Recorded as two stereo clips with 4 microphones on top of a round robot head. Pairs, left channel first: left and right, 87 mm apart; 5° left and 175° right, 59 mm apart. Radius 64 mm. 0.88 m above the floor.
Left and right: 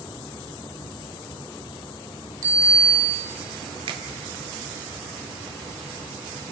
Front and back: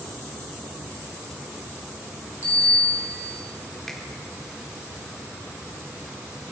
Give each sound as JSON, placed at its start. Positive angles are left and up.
{"t": 2.4, "sound": "a bicycle bell", "azimuth_deg": -40, "distance_m": 5.0}
{"t": 3.9, "sound": "a finger snap", "azimuth_deg": -80, "distance_m": 2.0}